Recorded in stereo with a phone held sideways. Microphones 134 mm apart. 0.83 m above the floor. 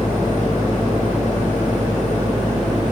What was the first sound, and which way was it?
A fan, 55° left (ahead or behind).